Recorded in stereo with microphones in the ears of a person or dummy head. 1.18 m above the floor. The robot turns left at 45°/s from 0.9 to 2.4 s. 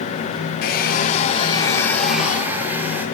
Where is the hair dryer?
55° left, 2.5 m; by 3.1 s 15° right, 2.5 m.